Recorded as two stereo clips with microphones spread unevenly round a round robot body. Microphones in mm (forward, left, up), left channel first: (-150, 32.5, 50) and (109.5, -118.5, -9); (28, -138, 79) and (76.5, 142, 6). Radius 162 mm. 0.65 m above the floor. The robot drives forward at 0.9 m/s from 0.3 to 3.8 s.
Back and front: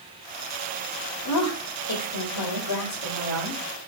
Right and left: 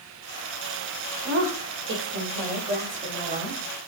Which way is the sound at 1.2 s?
105° left.